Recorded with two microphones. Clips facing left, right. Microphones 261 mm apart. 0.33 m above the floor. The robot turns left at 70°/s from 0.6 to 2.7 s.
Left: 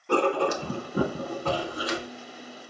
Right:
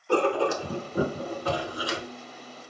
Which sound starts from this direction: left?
Writing, at 0.1 s.